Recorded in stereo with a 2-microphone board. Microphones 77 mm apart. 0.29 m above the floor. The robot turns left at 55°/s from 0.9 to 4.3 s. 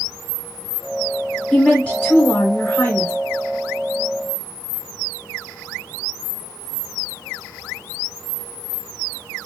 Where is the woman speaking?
10° left (ahead or behind), 1.0 m; by 3.1 s 25° left (ahead or behind), 1.0 m.